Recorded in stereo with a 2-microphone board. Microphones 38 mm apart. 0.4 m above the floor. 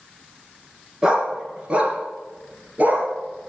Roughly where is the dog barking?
Centre.